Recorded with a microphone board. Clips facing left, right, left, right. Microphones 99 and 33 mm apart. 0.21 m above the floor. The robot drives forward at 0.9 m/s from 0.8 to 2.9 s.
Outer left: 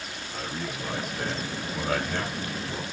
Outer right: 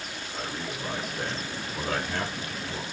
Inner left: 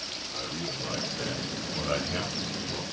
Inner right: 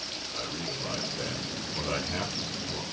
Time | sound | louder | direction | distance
0.3 | a man speaking | outer left 1 dB, even | 25° left (ahead or behind) | 4.5 m